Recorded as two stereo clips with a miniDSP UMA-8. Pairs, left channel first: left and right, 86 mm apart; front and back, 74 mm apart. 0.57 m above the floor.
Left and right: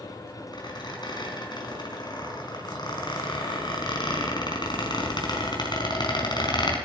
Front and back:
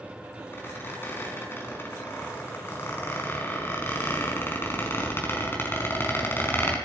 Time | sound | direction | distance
0.5 | a squeak | 60° left | 4.5 m